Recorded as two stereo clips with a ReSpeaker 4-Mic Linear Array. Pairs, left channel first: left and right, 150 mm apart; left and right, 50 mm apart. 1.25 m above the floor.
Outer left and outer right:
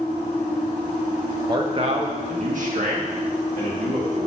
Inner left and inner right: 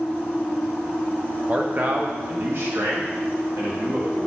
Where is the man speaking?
30° right (ahead or behind), 1.1 m; by 4.3 s 80° right, 3 m.